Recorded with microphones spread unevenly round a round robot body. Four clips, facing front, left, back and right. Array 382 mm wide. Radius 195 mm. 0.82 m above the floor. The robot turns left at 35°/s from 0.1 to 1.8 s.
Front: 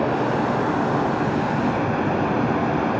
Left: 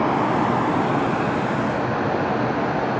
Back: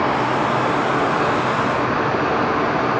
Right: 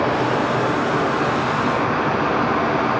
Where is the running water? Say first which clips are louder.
Even, back 2 dB; 85° left, 1.3 m; by 3.0 s 25° left, 1.3 m.